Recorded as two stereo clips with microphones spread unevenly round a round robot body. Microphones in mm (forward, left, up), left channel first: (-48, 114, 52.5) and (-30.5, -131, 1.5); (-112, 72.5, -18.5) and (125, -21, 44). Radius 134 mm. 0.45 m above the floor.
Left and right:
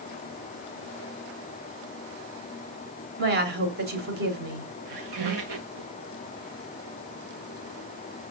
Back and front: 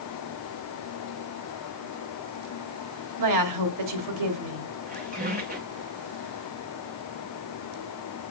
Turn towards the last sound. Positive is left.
turn(degrees=-80)